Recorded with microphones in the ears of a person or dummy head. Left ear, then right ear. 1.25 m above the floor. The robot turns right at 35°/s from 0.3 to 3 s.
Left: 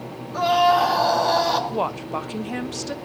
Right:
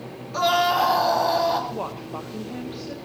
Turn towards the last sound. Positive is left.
turn(degrees=130)